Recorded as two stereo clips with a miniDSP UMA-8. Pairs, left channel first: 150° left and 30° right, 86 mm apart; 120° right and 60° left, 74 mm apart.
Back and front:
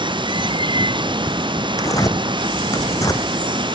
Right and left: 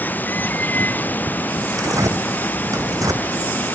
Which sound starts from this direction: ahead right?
Running water, at 0.0 s.